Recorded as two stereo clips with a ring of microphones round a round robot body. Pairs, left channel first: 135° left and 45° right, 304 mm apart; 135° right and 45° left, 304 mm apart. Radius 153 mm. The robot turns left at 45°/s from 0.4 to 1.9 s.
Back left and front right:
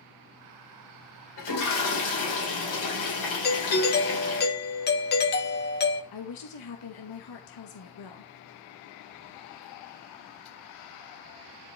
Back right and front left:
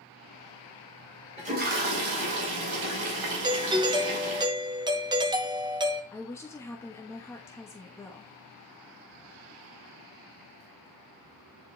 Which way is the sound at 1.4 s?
115° left.